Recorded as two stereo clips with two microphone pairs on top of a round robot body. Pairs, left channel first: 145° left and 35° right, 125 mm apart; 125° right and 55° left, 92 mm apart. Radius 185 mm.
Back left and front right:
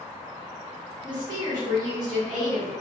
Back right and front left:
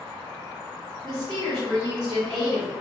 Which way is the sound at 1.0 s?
20° left.